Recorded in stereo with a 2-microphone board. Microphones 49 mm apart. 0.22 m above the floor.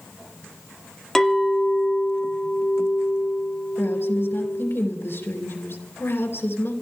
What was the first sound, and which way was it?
A clink, 10° left (ahead or behind).